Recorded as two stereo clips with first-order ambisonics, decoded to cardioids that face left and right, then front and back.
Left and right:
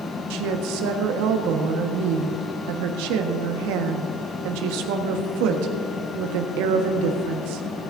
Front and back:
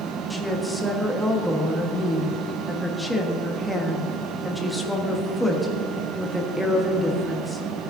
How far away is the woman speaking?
About 1.4 m.